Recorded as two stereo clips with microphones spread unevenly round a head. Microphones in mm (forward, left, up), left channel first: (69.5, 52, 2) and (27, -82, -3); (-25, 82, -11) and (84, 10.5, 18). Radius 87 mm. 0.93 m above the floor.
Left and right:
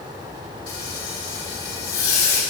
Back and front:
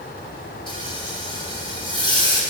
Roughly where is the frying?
Left.